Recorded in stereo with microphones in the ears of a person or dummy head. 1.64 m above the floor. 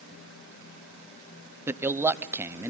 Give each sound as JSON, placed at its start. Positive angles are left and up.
{"t": 1.7, "sound": "a man speaking", "side_deg": -20, "distance_m": 0.8}